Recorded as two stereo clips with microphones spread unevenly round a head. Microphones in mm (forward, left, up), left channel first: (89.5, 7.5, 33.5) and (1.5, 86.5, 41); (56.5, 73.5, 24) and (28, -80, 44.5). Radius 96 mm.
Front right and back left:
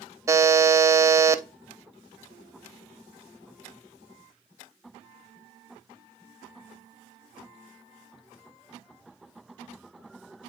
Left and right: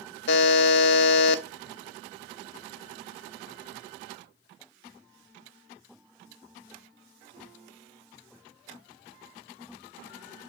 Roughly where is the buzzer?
Left.